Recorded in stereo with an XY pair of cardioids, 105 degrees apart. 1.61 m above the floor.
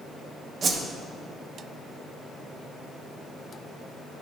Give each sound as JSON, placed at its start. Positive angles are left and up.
{"t": 0.6, "sound": "a whoosh", "azimuth_deg": -45, "distance_m": 1.0}